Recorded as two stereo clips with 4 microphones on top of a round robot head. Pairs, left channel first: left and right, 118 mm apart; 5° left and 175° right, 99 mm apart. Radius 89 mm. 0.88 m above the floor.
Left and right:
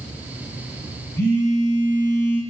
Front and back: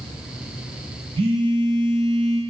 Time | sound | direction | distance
1.2 | a phone buzzing | 165° left | 0.5 m